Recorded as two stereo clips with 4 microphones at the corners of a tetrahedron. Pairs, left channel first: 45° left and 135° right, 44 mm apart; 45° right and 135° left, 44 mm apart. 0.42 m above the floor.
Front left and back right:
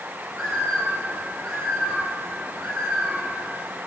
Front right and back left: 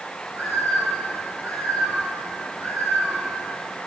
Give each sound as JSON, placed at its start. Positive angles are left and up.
{"t": 0.3, "sound": "a bird", "azimuth_deg": 130, "distance_m": 5.5}